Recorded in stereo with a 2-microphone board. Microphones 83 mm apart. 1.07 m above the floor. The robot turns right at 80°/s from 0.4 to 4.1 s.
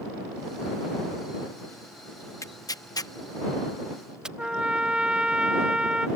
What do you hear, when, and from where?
2.4 s tearing paper: 40° left (ahead or behind); by 4.3 s 10° right (ahead or behind)
4.4 s a trumpet: 10° right (ahead or behind)